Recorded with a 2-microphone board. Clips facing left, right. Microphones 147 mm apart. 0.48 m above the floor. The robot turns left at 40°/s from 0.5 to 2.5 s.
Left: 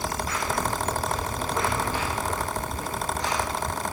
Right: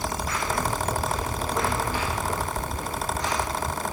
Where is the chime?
No chime in this recording.